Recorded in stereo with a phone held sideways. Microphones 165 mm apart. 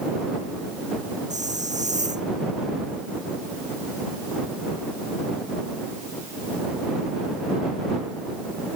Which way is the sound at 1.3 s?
50° right (ahead or behind).